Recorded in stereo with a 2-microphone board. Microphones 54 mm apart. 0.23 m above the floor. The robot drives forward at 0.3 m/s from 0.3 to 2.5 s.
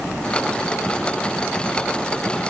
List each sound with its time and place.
Only background noise.